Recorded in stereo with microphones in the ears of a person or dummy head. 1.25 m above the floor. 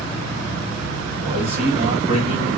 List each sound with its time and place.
1.2 s a man speaking: 30° right (ahead or behind), 1.9 m